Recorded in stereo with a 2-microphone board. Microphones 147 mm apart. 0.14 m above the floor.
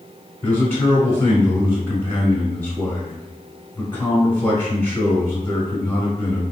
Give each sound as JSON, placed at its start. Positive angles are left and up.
{"t": 0.4, "sound": "a man speaking", "side_deg": 15, "distance_m": 1.1}